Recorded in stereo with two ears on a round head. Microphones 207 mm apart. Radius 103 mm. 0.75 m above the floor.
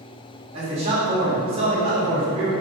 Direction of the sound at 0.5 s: 25° right (ahead or behind).